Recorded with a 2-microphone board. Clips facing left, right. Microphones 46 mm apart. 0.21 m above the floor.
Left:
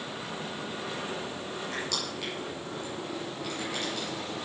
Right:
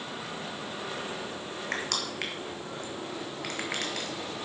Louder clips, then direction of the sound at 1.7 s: Right 4 dB; 65° right (ahead or behind).